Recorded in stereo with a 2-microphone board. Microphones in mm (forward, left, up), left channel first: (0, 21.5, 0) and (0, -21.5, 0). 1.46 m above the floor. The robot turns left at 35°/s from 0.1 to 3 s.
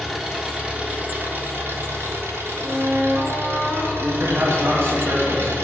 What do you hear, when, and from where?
0.0 s an engine running: 5° right, 1.6 m; by 5.7 s 105° right, 1.6 m
2.6 s a flute: 20° right (ahead or behind), 1.1 m; by 3.9 s 25° right (ahead or behind), 1.1 m
4.0 s a man speaking: 65° right (ahead or behind), 3 m